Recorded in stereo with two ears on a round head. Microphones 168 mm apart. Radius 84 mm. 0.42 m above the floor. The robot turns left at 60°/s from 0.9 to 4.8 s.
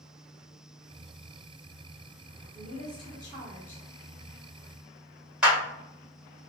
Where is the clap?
5° right (ahead or behind), 1.4 m.